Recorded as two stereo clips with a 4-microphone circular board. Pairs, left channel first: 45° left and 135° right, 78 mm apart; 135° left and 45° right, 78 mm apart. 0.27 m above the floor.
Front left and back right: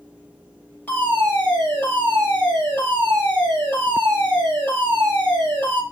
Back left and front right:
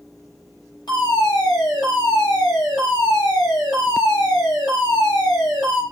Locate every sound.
0.9 s a fire alarm: 115° left, 8 m